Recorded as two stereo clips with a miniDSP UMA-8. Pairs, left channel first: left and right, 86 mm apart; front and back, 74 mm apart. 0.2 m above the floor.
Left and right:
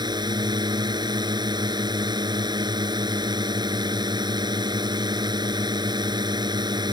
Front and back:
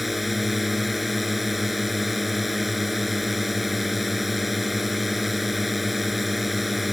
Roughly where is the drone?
Right.